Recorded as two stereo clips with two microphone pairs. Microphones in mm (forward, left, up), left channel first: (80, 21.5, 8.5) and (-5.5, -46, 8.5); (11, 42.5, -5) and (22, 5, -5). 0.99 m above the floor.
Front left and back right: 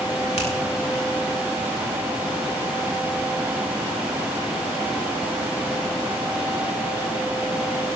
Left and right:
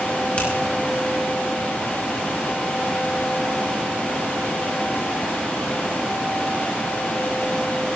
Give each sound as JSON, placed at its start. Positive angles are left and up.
{"t": 0.4, "sound": "a finger snap", "azimuth_deg": 45, "distance_m": 5.0}